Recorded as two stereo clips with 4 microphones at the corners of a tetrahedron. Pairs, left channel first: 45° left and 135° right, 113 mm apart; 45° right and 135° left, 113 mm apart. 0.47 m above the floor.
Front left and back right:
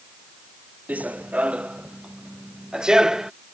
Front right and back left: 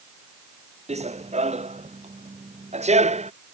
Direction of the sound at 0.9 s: 150° left.